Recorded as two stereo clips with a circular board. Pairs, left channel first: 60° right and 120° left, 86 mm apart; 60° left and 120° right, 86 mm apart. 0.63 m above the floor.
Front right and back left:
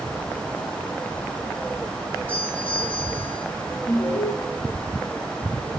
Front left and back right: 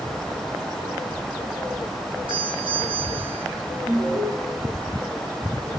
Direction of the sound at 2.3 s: 130° right.